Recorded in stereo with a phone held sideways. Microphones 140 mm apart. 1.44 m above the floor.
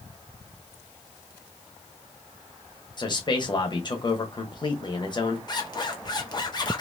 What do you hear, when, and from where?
3.0 s a man speaking: 35° left (ahead or behind), 1.2 m
5.5 s a zipper: 30° left (ahead or behind), 0.9 m